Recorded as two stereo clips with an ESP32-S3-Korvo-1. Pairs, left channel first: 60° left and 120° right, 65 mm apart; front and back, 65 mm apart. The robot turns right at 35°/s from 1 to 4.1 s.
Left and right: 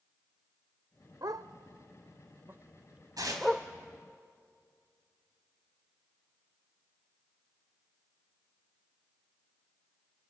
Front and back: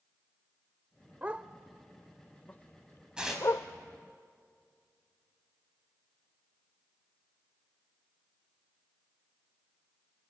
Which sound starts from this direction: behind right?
A dog barking, at 1.2 s.